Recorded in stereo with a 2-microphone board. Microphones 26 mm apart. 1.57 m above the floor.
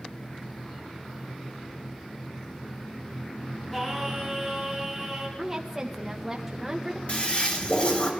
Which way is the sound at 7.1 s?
45° left (ahead or behind).